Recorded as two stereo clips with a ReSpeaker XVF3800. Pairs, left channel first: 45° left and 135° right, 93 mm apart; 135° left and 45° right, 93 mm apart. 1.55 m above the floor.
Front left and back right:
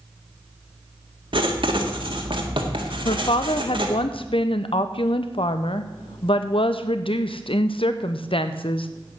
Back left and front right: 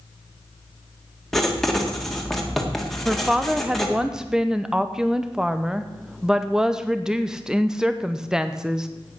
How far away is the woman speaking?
About 0.7 m.